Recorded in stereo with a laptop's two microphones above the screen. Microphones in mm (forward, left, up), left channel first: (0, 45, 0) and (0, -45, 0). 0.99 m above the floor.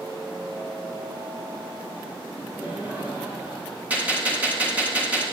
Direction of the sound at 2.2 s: 30° right (ahead or behind).